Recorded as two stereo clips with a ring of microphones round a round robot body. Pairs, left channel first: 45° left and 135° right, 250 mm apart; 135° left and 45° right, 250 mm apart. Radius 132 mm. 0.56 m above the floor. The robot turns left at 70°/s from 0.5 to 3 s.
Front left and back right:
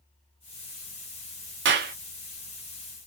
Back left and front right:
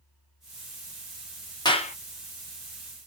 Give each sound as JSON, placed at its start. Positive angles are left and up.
{"t": 1.6, "sound": "a clap", "azimuth_deg": -155, "distance_m": 0.7}